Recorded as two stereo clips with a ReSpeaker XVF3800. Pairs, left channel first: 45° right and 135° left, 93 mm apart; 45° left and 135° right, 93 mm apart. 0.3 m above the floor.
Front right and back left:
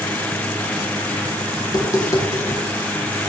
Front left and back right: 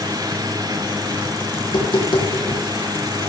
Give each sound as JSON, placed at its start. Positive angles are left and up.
{"t": 1.6, "sound": "tapping", "azimuth_deg": 5, "distance_m": 5.0}